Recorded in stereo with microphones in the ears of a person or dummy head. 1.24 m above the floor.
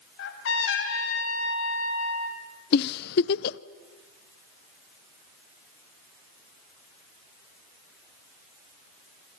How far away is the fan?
No fan in this recording.